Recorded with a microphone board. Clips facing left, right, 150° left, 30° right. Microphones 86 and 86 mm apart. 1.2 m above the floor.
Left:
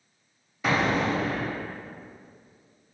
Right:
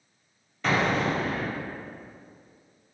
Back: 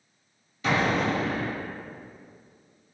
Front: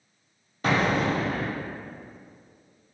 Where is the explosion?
10° left, 0.7 m.